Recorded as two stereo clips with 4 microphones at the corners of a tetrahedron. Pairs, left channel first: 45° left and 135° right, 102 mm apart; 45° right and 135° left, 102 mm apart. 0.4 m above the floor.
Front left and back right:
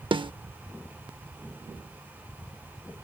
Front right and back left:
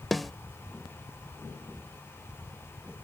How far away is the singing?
No singing in this recording.